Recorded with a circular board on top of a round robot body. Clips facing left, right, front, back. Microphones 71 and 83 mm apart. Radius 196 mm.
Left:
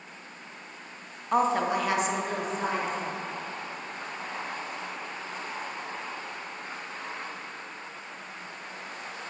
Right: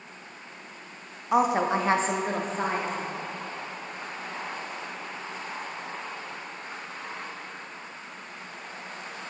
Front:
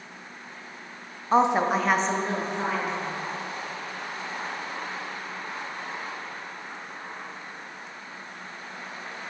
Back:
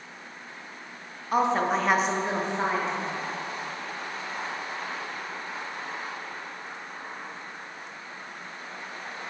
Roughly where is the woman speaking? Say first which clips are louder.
Right 2 dB, front 3 dB; ahead.